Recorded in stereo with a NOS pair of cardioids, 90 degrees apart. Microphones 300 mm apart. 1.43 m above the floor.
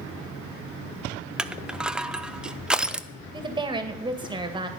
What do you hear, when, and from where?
1.4 s crushing: 5° right, 0.6 m
3.3 s a woman speaking: 15° right, 2 m